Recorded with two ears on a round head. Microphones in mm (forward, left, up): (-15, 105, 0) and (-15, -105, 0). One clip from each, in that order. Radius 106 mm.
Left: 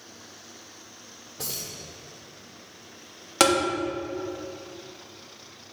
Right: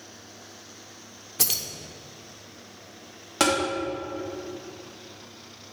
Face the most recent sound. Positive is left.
turn(degrees=20)  # may be behind; listen again after turning